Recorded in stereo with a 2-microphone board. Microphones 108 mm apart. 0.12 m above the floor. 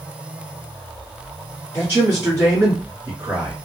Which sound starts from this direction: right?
A man speaking, at 1.7 s.